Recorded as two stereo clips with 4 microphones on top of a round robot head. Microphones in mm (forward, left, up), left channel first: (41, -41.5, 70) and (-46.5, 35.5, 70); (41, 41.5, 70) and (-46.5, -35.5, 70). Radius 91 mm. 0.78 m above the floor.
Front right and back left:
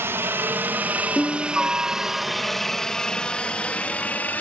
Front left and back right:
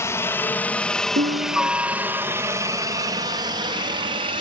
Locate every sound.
0.0 s a helicopter: 85° left; by 4.4 s 115° right
1.2 s a piano: 125° right